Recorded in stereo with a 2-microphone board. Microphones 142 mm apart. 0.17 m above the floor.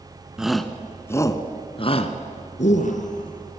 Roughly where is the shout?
Centre.